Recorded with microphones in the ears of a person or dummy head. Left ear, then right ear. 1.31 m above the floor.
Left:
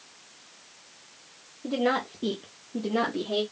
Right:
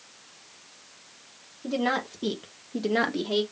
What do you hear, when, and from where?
1.6 s a woman speaking: 15° right (ahead or behind), 0.8 m; by 3.4 s 40° right (ahead or behind), 0.7 m